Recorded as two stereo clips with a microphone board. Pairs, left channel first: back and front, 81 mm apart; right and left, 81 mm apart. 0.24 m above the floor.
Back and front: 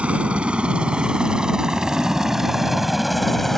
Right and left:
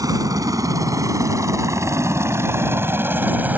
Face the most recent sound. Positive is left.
turn(degrees=100)